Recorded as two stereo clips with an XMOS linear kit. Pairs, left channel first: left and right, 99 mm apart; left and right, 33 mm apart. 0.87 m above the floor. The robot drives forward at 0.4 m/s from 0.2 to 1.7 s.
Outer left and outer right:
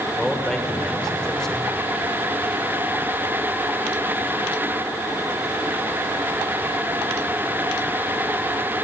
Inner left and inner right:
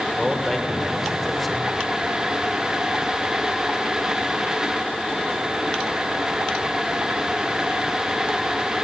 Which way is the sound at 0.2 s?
5° left (ahead or behind).